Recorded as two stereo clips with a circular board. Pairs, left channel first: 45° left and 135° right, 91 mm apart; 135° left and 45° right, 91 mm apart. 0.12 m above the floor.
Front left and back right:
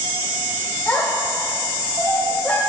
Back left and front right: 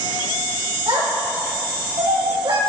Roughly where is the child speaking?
Ahead right.